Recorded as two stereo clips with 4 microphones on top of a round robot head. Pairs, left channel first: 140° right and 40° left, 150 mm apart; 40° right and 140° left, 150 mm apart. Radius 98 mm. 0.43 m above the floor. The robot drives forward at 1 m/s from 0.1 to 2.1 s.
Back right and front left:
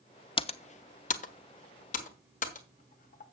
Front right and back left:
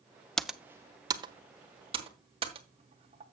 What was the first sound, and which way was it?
Typing on a keyboard, 125° right.